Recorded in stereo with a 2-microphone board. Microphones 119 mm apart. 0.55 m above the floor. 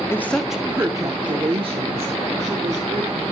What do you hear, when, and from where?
0.1 s a woman speaking: 20° left (ahead or behind), 0.8 m; by 3.2 s 65° right (ahead or behind), 2.5 m